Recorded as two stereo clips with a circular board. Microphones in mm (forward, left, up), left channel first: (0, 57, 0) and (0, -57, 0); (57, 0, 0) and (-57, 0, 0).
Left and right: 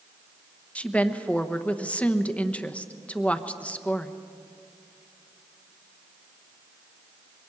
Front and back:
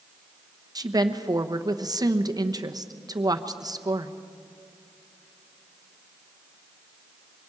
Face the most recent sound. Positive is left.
turn(degrees=160)